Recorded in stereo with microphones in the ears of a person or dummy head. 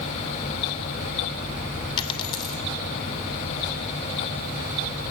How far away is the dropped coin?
About 3 m.